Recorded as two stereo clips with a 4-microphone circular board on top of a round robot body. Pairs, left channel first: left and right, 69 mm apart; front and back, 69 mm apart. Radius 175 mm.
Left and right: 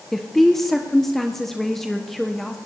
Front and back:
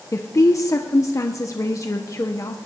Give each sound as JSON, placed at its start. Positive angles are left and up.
{"t": 0.1, "sound": "a woman speaking", "azimuth_deg": 5, "distance_m": 1.3}